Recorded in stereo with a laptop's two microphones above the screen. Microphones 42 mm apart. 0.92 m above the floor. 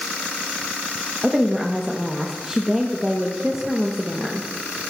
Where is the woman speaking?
15° right (ahead or behind), 0.8 m.